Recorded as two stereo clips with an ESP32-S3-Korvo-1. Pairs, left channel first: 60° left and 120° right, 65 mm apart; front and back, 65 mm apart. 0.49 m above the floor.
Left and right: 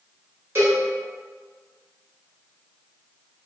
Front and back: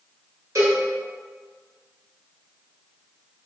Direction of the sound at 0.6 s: 165° right.